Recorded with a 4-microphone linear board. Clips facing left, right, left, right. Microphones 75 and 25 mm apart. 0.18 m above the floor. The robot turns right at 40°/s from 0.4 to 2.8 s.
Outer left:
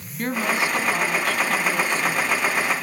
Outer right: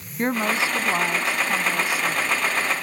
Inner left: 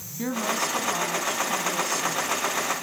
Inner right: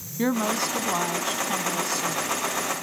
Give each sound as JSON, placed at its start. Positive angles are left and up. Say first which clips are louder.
{"t": 0.2, "sound": "a woman speaking", "louder": "outer right 1 dB, inner right 2 dB", "side_deg": -25, "distance_m": 1.2}